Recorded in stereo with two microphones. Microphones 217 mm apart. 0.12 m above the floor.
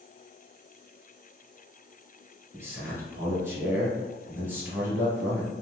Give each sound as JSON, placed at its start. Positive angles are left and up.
{"t": 2.5, "sound": "a man speaking", "side_deg": -10, "distance_m": 1.5}